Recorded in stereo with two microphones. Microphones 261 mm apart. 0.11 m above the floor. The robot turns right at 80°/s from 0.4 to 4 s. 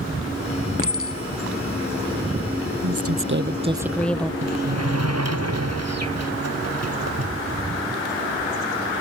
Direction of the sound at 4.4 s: 70° right (ahead or behind).